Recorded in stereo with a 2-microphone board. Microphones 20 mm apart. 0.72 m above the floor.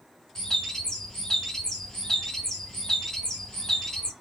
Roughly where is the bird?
Left.